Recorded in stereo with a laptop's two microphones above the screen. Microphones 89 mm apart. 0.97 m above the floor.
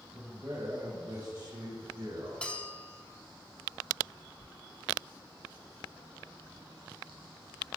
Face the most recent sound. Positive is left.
turn(degrees=15)  # may be behind; listen again after turning